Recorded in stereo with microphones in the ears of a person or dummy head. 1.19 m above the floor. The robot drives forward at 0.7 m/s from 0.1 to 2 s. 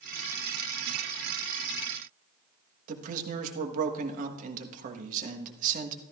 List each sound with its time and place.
2.9 s a man speaking: 50° right (ahead or behind), 1.3 m